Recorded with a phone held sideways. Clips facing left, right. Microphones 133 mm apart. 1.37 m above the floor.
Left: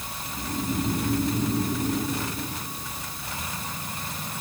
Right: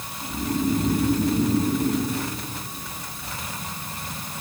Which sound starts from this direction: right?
Snoring, at 0.2 s.